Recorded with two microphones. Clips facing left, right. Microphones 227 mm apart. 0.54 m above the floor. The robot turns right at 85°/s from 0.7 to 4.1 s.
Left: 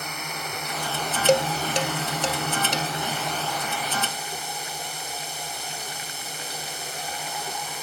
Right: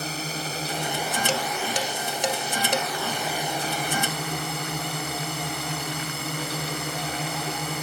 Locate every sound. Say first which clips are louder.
0.0 s a drone: right 4 dB; 35° right; by 7.8 s 105° right
1.3 s dishes clattering: left 7 dB; 65° left (ahead or behind); by 2.9 s 65° right (ahead or behind)